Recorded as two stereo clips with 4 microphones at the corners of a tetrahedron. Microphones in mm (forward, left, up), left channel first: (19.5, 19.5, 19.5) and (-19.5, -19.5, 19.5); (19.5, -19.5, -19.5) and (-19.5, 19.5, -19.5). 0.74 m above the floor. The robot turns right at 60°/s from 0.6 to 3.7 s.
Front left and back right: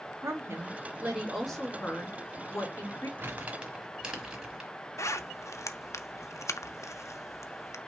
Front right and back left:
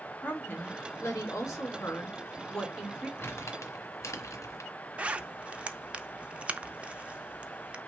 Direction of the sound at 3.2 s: 90° right.